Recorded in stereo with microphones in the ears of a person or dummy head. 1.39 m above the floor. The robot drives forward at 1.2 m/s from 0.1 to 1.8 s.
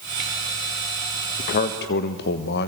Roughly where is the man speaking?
Left.